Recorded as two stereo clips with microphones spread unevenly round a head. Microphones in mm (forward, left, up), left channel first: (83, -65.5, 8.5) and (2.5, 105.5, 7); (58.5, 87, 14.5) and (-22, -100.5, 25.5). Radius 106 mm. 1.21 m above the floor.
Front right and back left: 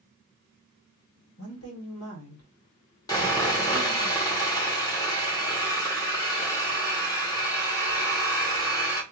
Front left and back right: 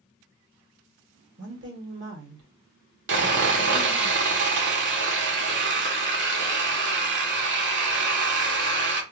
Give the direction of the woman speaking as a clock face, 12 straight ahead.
3 o'clock.